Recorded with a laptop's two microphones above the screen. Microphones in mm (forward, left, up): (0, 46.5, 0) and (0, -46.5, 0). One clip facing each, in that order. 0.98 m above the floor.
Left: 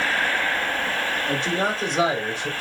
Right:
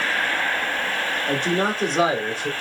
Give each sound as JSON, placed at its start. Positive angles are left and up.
{"t": 1.3, "sound": "a man speaking", "side_deg": -50, "distance_m": 1.7}